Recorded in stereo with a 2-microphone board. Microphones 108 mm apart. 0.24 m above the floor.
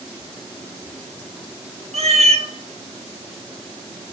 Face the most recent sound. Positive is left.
turn(degrees=-90)